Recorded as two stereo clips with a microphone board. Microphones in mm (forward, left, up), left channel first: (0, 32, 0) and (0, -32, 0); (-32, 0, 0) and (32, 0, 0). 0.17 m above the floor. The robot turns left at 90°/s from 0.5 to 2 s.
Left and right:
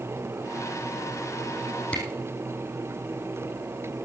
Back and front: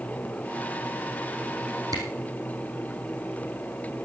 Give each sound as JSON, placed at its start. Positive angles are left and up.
{"t": 1.9, "sound": "a camera shutter", "azimuth_deg": 15, "distance_m": 4.0}